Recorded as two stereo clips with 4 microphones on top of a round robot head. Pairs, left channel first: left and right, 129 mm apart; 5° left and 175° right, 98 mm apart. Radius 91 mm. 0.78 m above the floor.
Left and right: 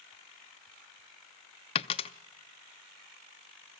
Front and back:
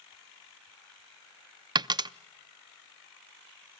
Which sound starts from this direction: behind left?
A dropped coin, at 1.8 s.